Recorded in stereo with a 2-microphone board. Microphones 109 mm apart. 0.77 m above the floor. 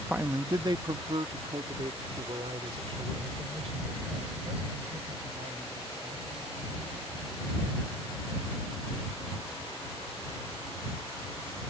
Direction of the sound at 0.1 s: 10° right (ahead or behind).